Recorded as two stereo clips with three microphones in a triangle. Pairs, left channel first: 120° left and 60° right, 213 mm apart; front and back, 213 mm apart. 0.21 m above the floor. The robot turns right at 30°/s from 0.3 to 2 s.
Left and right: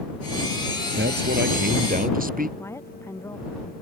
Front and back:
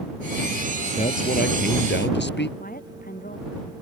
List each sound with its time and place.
0.9 s a man speaking: 50° right; by 2.5 s 20° right
2.6 s a woman speaking: 45° left